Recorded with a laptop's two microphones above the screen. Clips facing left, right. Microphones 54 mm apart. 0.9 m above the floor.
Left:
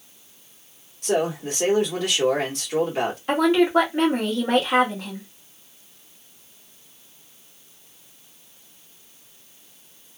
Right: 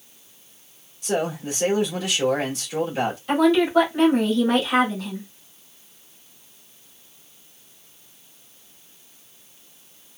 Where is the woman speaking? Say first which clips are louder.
Even; 40° left (ahead or behind), 2 m.